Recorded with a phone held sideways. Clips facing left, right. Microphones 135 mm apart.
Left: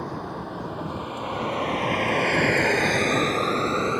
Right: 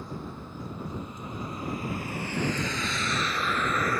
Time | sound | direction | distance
0.0 | a vehicle | 75° left (ahead or behind) | ?